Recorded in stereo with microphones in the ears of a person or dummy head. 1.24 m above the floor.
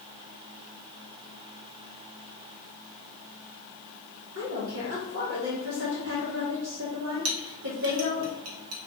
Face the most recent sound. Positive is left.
turn(degrees=-85)